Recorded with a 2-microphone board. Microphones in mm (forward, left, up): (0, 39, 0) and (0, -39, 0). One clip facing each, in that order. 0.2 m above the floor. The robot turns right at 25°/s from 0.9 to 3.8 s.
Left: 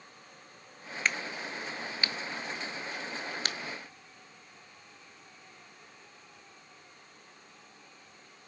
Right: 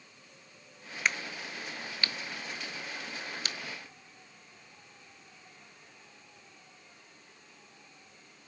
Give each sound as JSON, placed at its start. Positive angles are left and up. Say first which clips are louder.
{"t": 1.1, "sound": "a crack", "louder": "even", "side_deg": -5, "distance_m": 0.7}